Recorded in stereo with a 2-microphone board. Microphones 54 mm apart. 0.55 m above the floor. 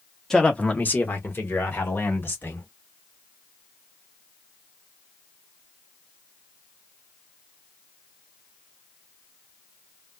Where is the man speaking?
10° left (ahead or behind), 0.9 m; by 2.7 s 45° left (ahead or behind), 2.5 m.